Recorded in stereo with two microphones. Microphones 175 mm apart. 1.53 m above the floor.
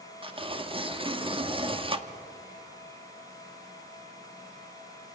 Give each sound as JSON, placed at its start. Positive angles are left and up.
{"t": 0.2, "sound": "tearing paper", "side_deg": -30, "distance_m": 1.1}